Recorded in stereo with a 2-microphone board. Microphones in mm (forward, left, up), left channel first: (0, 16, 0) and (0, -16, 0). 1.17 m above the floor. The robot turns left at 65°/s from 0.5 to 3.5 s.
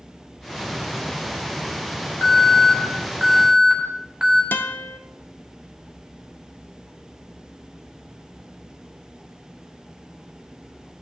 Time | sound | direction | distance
2.2 | an alarm | 65° left | 3.5 m
4.5 | a guitar | 70° left (ahead or behind) | 0.6 m